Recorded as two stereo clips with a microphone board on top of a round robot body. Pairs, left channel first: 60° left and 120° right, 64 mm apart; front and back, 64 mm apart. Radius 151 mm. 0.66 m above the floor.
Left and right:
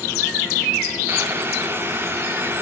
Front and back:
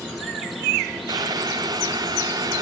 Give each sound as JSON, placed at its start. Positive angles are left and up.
{"t": 1.1, "sound": "boiling", "azimuth_deg": -175, "distance_m": 1.3}